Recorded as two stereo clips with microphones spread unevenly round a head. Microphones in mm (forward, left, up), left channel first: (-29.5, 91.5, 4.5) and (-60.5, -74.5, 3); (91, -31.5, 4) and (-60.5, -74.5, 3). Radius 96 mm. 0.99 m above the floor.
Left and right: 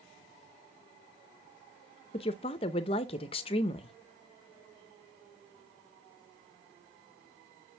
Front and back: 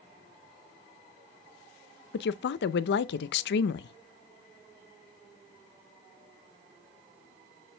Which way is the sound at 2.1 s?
15° left.